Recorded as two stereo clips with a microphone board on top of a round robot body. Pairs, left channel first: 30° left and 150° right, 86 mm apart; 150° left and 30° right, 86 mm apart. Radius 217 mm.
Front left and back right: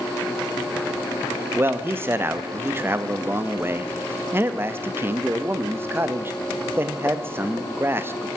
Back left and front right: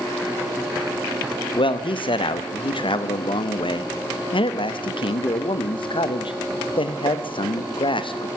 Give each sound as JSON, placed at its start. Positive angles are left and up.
{"t": 1.6, "sound": "a man speaking", "azimuth_deg": 150, "distance_m": 1.0}